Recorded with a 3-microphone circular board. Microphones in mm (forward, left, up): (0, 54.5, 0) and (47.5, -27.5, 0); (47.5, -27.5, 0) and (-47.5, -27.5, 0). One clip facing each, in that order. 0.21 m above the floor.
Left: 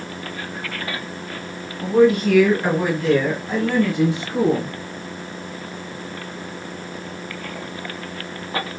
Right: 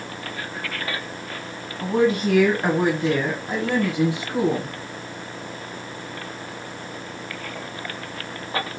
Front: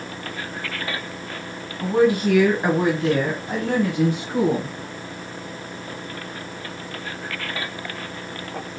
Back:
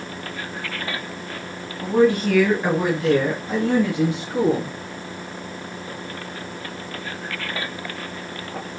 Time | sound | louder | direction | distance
1.8 | a woman speaking | left 5 dB, back 1 dB | 70° right | 1.6 m